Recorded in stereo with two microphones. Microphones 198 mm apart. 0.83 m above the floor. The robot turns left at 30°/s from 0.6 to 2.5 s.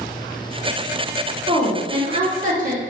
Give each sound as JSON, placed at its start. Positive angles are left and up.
{"t": 1.5, "sound": "a woman speaking", "azimuth_deg": -15, "distance_m": 1.0}